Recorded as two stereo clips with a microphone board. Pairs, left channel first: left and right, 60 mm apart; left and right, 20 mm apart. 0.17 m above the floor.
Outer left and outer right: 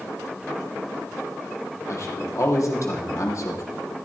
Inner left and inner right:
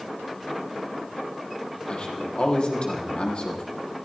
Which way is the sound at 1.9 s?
55° left (ahead or behind).